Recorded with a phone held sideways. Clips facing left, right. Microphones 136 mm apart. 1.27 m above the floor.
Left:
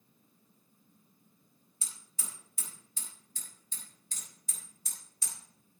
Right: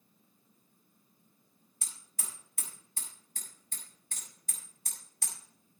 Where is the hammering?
65° right (ahead or behind), 4.5 m.